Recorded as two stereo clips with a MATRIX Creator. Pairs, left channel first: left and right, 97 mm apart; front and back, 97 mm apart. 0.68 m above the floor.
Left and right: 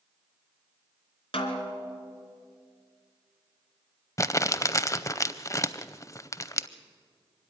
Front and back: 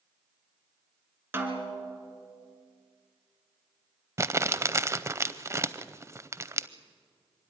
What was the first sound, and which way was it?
A snare drum, 115° left.